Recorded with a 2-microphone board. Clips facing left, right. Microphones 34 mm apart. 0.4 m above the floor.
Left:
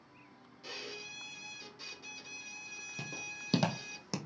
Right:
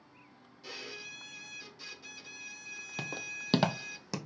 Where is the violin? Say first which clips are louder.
Right 1 dB; 5° left (ahead or behind), 0.8 m.